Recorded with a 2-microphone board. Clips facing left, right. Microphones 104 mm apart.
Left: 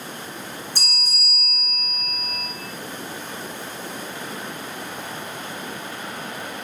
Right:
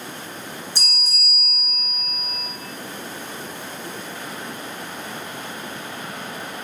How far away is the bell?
About 0.9 m.